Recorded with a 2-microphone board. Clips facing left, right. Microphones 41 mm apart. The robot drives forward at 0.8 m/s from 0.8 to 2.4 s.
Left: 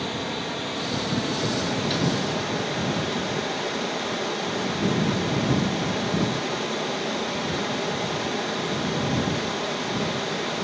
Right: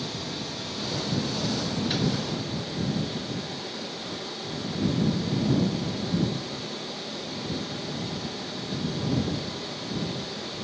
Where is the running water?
45° left (ahead or behind), 1.9 m; by 10.6 s 70° left (ahead or behind), 1.5 m.